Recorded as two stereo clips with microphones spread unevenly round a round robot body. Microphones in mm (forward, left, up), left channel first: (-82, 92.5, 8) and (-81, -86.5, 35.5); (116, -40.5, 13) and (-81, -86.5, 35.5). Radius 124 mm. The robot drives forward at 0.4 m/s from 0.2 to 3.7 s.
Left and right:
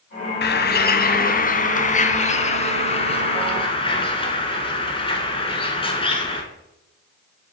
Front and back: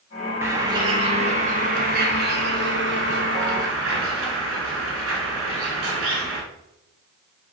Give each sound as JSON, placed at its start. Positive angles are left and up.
{"t": 0.4, "sound": "a bird", "azimuth_deg": 110, "distance_m": 1.0}